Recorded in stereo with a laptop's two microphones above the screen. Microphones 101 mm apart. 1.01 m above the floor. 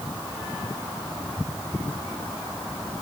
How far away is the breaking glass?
No breaking glass in this recording.